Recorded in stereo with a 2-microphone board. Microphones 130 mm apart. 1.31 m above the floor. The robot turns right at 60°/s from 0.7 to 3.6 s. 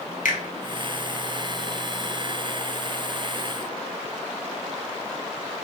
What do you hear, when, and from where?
0.2 s a finger snap: 80° left, 0.7 m